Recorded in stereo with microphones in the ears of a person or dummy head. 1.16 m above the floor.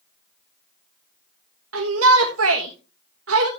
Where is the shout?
75° right (ahead or behind), 1.4 m.